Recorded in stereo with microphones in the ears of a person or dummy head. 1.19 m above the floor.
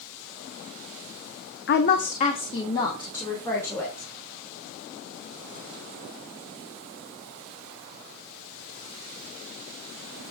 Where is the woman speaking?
55° left (ahead or behind), 0.7 m; by 4.1 s 15° left (ahead or behind), 2.5 m.